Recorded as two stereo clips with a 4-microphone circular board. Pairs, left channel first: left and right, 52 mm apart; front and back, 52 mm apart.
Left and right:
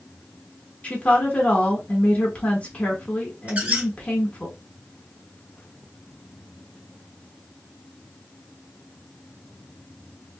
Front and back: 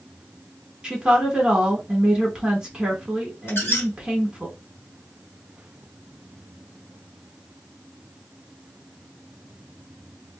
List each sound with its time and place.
0.8 s a woman speaking: 120° left, 1.3 m
3.5 s a squeak: 35° right, 1.2 m